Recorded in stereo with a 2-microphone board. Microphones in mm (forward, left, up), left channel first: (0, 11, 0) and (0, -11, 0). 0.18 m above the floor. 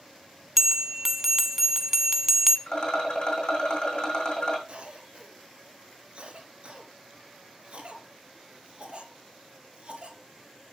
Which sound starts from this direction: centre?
A bell, at 0.6 s.